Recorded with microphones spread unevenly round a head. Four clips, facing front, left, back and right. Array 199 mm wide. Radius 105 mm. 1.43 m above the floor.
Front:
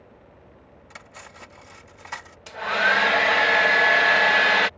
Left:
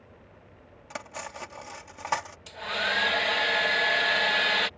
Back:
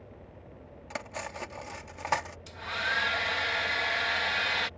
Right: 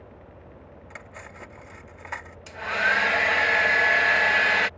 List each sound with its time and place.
0.9 s cutlery clinking: 150° left
2.5 s a hair dryer: 5° right